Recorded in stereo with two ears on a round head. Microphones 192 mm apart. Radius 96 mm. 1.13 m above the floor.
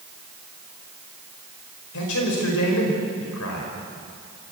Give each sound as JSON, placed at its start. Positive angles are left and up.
{"t": 1.9, "sound": "a man speaking", "side_deg": 75, "distance_m": 5.0}